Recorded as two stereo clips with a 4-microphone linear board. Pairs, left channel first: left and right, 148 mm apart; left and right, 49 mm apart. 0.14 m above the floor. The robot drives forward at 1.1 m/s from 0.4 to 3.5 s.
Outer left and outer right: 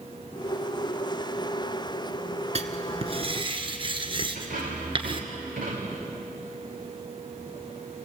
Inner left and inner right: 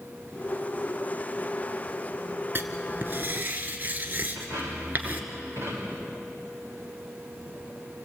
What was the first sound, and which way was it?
Writing, 50° right (ahead or behind).